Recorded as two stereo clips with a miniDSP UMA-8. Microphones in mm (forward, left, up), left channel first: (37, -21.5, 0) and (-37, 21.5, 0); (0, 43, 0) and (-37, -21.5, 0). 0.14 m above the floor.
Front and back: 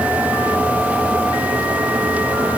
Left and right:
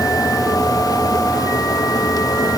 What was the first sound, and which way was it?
Only background noise.